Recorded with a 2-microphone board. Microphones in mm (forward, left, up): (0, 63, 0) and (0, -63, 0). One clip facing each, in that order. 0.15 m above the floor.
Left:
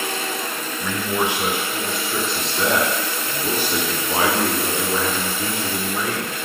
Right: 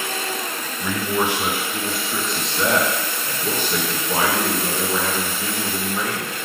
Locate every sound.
0.8 s a man speaking: 10° right (ahead or behind), 1.7 m; by 6.4 s 25° left (ahead or behind), 3 m